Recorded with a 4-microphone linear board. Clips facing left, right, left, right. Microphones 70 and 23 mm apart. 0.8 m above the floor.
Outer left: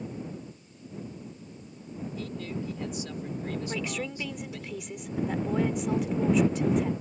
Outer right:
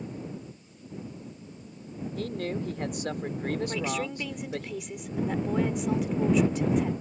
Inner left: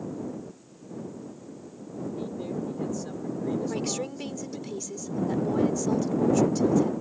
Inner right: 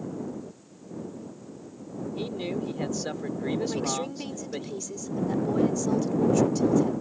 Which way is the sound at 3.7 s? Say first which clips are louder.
Outer right 3 dB, inner right 1 dB; centre (ahead or behind).